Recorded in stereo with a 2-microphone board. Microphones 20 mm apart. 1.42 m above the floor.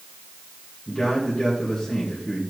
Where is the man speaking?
20° left (ahead or behind), 2 m.